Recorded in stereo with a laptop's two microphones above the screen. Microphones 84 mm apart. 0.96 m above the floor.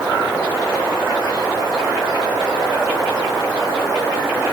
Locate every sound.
Only background noise.